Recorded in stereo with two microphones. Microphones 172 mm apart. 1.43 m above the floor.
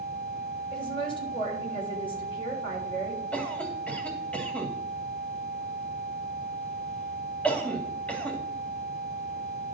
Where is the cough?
5° left (ahead or behind), 2.5 m.